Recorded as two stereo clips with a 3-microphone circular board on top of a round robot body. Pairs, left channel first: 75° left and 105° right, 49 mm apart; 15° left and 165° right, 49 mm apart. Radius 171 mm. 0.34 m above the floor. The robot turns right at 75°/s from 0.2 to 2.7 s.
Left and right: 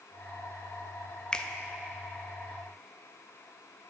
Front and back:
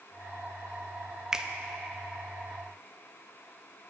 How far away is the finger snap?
About 0.7 m.